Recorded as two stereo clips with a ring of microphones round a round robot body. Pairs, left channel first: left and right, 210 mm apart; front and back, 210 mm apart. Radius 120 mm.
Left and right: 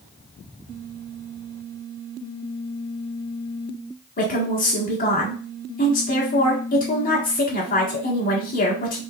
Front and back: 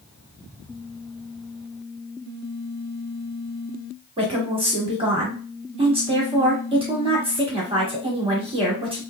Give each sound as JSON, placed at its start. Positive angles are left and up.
{"t": 4.2, "sound": "a woman speaking", "azimuth_deg": 125, "distance_m": 1.4}